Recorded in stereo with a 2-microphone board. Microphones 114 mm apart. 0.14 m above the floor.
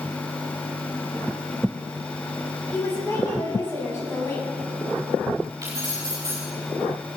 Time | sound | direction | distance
2.7 | a woman speaking | 25° left (ahead or behind) | 6 m
5.6 | keys jangling | 30° right (ahead or behind) | 7.5 m